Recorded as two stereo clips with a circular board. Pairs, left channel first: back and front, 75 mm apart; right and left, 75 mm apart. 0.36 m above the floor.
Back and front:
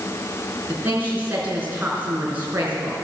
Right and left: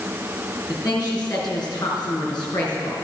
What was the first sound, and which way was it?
A woman speaking, 65° right.